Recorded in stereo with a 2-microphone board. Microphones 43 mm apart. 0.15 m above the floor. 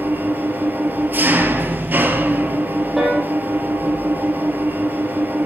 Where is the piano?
5° right (ahead or behind), 4.5 m.